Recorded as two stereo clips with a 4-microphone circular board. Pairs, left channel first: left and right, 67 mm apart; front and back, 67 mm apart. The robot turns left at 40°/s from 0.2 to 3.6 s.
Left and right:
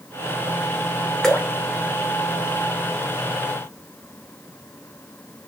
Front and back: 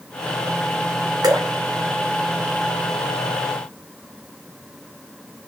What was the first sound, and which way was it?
Dripping, 170° left.